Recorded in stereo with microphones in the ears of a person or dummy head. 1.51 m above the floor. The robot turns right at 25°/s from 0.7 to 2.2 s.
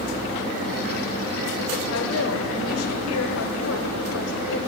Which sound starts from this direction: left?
A woman speaking, at 1.9 s.